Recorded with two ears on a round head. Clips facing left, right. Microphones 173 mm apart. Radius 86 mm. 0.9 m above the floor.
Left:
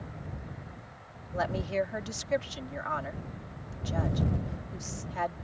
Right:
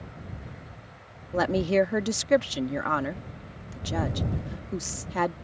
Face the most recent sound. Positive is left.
turn(degrees=-70)  # may be behind; listen again after turning